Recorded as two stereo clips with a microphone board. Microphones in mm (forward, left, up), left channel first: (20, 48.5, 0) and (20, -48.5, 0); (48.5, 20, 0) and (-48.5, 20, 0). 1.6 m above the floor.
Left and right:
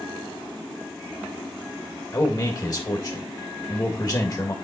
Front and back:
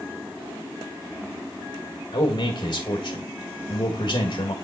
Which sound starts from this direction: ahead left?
A man speaking, at 2.1 s.